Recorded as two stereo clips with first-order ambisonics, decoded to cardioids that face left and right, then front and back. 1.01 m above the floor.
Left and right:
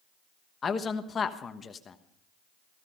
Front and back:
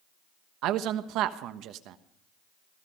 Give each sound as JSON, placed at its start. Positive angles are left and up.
{"t": 0.6, "sound": "a man speaking", "azimuth_deg": 155, "distance_m": 1.1}